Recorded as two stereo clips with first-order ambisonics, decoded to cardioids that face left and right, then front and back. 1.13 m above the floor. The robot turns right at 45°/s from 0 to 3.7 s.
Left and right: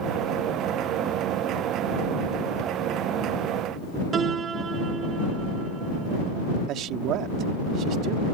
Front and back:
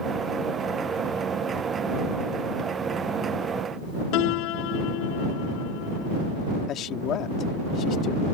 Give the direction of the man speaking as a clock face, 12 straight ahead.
2 o'clock.